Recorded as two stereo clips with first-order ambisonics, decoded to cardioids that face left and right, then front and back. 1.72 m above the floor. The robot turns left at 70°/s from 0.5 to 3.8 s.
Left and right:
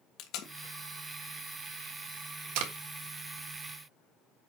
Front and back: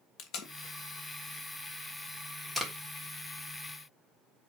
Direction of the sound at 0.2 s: 45° left.